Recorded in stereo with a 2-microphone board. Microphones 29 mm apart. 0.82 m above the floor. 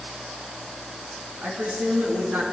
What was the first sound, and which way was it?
A woman speaking, 80° right.